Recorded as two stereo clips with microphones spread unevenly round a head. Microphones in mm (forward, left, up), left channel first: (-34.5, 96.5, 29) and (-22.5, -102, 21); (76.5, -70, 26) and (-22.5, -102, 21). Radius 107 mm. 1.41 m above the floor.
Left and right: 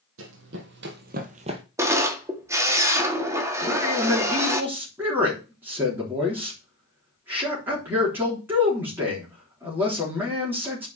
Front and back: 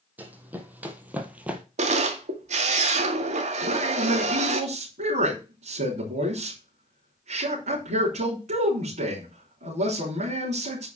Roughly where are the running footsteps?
Right.